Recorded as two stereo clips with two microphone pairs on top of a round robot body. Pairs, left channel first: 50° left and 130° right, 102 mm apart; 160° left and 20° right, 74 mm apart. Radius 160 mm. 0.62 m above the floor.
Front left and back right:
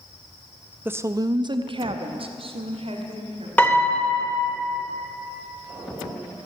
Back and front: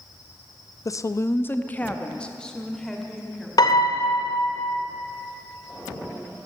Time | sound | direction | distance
0.8 | a woman speaking | 175° left | 0.7 m
3.6 | a piano | 130° left | 1.6 m